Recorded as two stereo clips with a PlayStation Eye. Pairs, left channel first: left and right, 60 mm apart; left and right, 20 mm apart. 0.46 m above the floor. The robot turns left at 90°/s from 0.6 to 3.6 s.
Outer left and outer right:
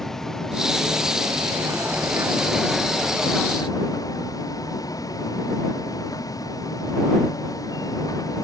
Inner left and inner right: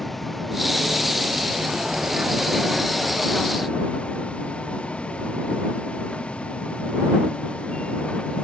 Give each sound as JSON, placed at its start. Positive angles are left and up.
{"t": 0.0, "sound": "a vehicle", "side_deg": 5}